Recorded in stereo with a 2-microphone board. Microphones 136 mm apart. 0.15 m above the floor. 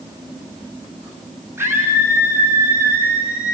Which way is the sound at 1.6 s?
20° right (ahead or behind).